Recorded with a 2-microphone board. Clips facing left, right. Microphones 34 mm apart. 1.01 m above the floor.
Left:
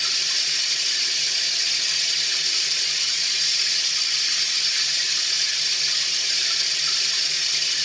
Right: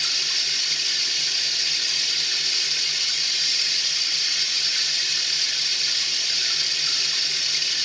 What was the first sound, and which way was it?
Running water, 10° right (ahead or behind).